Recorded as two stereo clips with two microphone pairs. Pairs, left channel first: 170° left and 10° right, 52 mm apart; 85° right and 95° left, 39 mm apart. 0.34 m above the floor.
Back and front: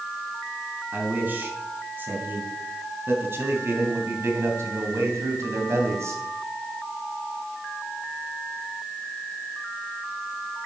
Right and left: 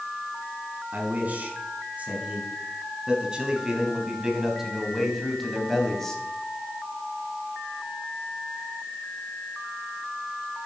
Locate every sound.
0.9 s a man speaking: 45° left, 4 m; by 6.2 s 10° right, 2.5 m